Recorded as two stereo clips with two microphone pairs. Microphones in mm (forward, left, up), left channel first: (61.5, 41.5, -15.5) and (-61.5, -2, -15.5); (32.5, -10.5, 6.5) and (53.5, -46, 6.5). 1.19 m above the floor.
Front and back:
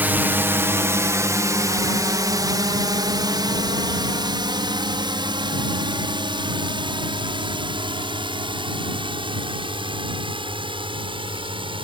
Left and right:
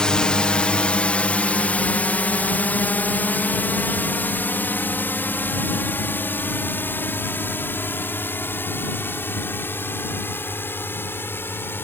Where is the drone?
145° left; by 11.8 s 150° left.